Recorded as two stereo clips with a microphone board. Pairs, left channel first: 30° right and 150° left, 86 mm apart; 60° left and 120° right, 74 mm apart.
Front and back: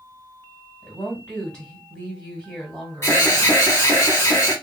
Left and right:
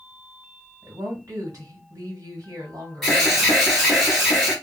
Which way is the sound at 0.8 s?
105° right.